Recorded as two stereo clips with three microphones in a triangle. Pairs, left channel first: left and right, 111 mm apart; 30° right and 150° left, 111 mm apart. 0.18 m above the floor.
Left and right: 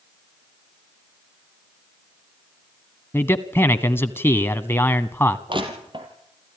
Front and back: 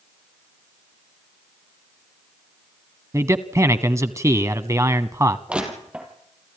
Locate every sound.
3.1 s a man speaking: 135° left, 1.1 m
5.5 s crushing: 130° right, 4.5 m